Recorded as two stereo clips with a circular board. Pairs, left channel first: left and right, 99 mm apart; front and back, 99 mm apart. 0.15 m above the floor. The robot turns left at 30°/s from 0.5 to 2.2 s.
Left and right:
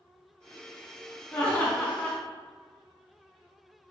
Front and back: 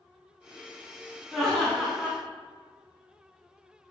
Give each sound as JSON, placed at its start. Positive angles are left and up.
{"t": 1.3, "sound": "laughter", "azimuth_deg": 75, "distance_m": 1.3}